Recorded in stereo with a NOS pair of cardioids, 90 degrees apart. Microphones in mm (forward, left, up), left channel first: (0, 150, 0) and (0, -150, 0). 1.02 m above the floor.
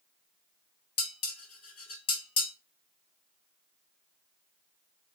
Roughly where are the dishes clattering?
Ahead left.